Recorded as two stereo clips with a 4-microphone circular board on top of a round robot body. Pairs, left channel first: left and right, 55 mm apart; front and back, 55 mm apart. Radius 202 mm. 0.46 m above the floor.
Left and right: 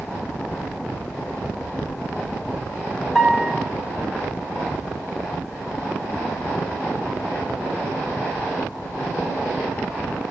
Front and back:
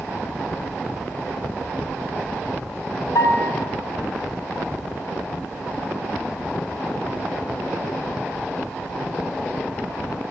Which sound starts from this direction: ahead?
A piano, at 3.1 s.